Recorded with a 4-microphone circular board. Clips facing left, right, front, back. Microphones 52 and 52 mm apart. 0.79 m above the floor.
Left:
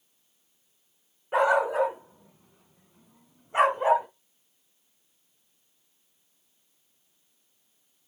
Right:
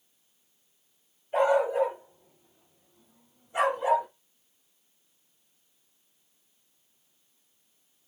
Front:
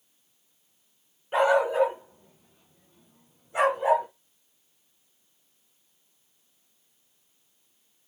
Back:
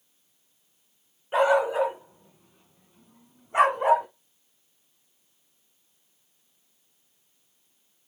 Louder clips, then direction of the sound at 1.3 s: Left 1 dB, even; 95° left.